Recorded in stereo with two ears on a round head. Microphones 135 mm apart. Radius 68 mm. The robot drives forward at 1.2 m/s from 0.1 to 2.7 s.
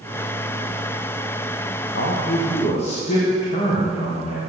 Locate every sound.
1.9 s a man speaking: 65° left (ahead or behind), 1.0 m; by 4.4 s 40° left (ahead or behind), 1.4 m